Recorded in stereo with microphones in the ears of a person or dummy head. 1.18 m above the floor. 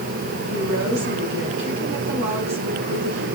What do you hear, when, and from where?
0.5 s a woman speaking: 75° right (ahead or behind), 7.5 m